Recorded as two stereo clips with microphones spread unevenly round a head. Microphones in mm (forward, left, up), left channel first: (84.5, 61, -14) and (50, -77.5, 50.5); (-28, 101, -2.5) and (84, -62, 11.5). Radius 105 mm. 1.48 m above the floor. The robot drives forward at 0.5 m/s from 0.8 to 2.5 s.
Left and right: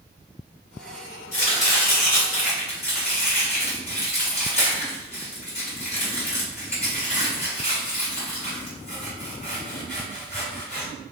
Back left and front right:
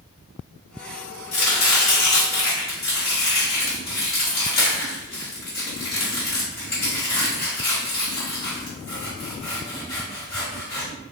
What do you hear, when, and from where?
1.3 s chopping: 130° left, 1.8 m; by 10.9 s 145° left, 2 m